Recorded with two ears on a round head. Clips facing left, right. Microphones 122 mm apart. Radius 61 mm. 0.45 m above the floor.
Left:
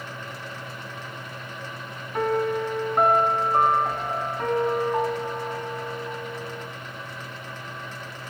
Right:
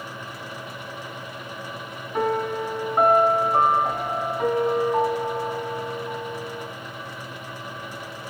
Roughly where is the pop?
No pop in this recording.